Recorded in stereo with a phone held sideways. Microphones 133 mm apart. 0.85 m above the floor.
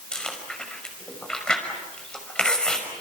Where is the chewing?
5° left (ahead or behind), 5.5 m.